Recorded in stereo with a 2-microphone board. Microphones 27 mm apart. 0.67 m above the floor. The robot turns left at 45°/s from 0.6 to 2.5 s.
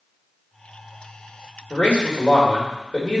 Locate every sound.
1.7 s a man speaking: 75° left, 2.5 m; by 3.2 s 40° left, 2.5 m